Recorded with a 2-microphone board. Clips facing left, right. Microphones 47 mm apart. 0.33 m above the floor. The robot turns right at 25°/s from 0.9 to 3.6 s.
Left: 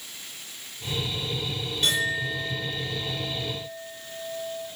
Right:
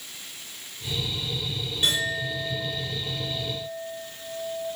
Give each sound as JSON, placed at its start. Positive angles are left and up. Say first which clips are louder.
{"t": 1.8, "sound": "a clink", "louder": "left 1 dB", "azimuth_deg": -170, "distance_m": 3.5}